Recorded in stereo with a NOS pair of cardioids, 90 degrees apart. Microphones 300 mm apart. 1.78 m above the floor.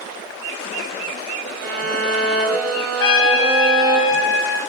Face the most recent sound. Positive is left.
turn(degrees=45)